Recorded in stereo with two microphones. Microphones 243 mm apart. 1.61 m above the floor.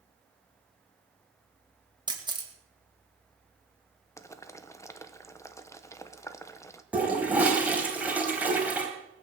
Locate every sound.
2.1 s a camera shutter: 15° right (ahead or behind), 2 m
4.2 s boiling: 10° left (ahead or behind), 0.9 m
6.9 s a toilet flushing: 5° right (ahead or behind), 3 m